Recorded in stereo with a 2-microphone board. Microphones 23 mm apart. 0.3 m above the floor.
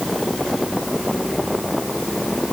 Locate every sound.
Only background noise.